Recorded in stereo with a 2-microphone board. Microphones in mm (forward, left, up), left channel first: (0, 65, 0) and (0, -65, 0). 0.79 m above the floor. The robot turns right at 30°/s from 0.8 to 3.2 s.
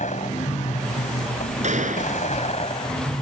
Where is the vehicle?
70° left; by 3.2 s 145° left.